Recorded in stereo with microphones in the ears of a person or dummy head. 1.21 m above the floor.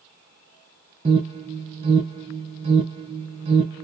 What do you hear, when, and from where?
1.1 s an alarm: 30° right (ahead or behind), 1.2 m